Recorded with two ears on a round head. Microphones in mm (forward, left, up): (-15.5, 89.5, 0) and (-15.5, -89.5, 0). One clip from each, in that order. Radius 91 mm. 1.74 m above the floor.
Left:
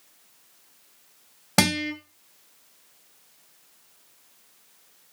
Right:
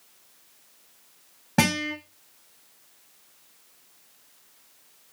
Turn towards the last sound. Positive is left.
turn(degrees=90)